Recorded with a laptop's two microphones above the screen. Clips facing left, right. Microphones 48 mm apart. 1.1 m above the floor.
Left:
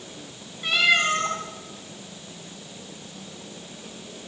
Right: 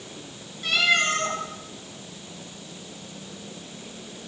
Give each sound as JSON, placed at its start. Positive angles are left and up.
{"t": 0.6, "sound": "a cat meowing", "side_deg": 10, "distance_m": 5.0}